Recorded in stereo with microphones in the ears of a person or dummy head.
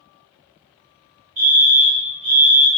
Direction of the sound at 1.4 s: 30° right (ahead or behind).